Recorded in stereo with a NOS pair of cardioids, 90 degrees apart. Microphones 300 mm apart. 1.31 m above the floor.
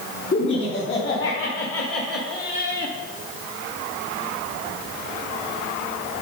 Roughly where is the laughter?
Ahead left.